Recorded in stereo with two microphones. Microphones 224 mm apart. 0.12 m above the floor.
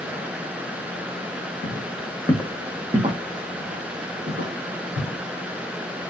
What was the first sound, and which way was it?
Footsteps, 45° left (ahead or behind).